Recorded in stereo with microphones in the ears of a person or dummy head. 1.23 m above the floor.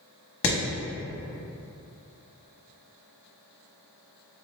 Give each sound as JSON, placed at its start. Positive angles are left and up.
{"t": 0.4, "sound": "hammering", "side_deg": 60, "distance_m": 1.0}